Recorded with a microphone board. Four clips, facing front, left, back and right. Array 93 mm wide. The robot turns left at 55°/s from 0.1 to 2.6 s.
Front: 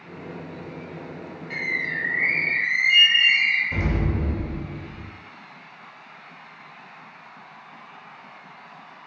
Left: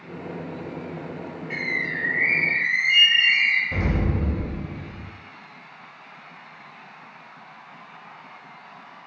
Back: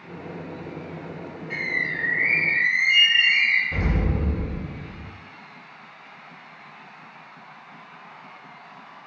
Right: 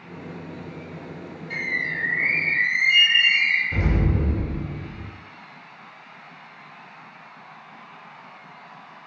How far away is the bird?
About 1.5 m.